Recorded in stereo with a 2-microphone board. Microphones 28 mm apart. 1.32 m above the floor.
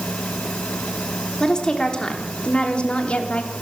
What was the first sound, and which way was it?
A woman speaking, 25° left (ahead or behind).